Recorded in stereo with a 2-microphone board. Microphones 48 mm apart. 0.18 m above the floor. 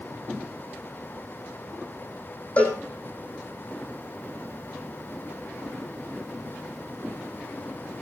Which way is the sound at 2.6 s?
30° left (ahead or behind).